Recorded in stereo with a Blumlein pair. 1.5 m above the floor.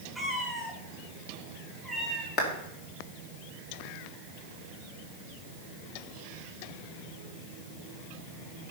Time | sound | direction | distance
0.1 | a cat meowing | straight ahead | 5 m
2.4 | a clap | 35° left | 3 m